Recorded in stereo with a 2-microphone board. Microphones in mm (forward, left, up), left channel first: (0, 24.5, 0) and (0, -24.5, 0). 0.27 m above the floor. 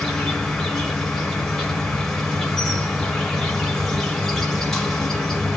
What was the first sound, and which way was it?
An insect, 5° left (ahead or behind).